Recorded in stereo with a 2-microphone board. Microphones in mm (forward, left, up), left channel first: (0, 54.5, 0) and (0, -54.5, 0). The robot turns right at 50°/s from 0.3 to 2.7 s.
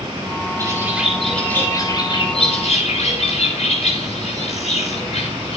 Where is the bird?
35° right, 10 m; by 5.6 s 75° left, 10 m.